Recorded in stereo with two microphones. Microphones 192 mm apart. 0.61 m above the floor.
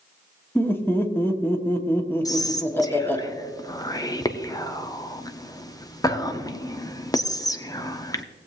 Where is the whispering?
20° left (ahead or behind), 0.8 m.